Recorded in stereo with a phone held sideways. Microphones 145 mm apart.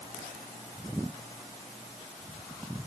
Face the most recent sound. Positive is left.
No sound to turn to.